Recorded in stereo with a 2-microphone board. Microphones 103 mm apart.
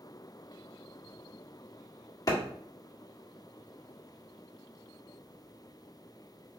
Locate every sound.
2.3 s a clap: 35° left (ahead or behind), 1.6 m